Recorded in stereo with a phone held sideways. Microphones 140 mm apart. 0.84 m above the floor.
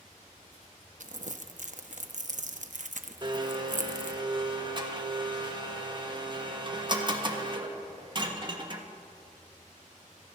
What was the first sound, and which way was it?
Crumpling, 60° right (ahead or behind).